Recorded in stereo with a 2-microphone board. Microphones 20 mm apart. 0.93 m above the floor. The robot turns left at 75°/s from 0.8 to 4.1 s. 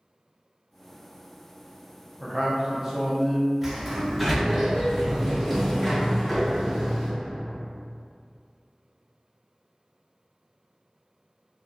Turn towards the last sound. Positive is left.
turn(degrees=0)  # may be behind; listen again after turning